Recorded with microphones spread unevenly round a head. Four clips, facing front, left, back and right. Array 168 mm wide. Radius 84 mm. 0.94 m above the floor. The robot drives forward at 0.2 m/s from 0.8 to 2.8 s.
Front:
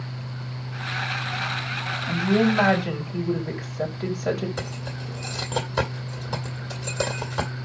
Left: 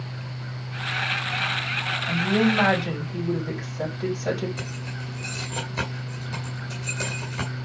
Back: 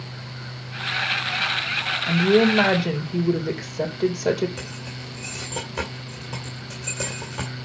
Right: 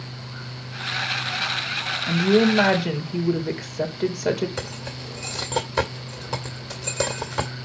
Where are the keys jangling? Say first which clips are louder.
Right 2 dB, front 3 dB; 90° right, 2.0 m.